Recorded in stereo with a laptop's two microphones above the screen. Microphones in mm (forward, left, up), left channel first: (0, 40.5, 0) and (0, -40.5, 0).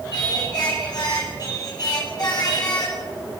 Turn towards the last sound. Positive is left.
turn(degrees=55)  # may be behind; listen again after turning